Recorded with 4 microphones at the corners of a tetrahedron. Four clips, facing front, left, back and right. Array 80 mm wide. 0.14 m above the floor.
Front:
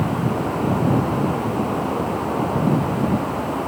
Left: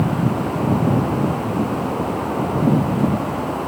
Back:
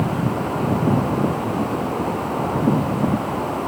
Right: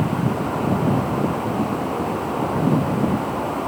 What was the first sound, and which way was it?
Only background noise.